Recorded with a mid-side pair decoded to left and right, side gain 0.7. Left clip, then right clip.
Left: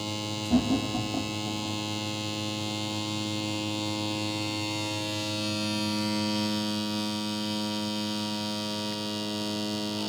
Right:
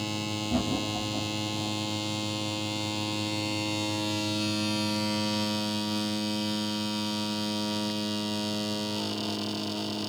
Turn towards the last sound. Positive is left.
turn(degrees=40)